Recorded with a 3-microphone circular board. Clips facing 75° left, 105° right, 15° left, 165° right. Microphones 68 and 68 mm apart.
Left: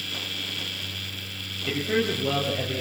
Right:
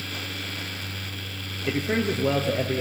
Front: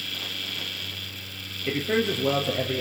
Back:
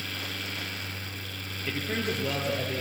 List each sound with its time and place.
1.7 s a man speaking: 45° right, 4 m